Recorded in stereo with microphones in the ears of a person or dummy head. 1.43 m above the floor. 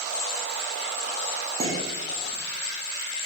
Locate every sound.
1.6 s dishes clattering: 40° right (ahead or behind), 1.6 m